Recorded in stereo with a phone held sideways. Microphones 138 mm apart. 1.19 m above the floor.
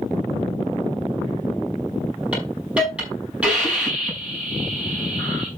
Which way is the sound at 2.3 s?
10° right (ahead or behind).